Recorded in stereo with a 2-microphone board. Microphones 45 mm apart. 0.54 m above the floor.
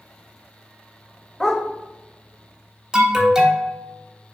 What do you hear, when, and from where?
1.4 s a dog barking: 15° left (ahead or behind), 0.5 m
2.9 s an alarm: 15° right (ahead or behind), 0.6 m